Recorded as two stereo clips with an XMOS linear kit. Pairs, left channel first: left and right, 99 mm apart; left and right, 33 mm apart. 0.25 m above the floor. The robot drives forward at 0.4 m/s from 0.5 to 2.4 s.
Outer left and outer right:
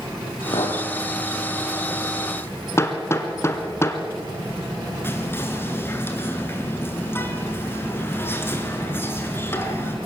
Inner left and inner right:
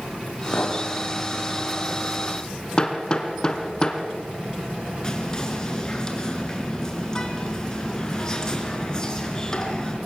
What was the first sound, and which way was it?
A clink, 65° left (ahead or behind).